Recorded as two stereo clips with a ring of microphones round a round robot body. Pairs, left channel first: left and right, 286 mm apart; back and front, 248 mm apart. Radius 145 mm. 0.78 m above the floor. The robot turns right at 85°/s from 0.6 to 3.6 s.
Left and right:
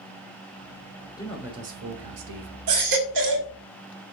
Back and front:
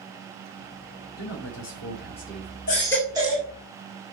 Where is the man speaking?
165° left, 3 m; by 2.6 s 75° right, 3 m.